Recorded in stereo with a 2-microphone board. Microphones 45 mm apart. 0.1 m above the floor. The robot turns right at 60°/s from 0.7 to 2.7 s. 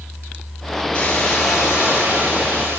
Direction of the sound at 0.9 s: 150° left.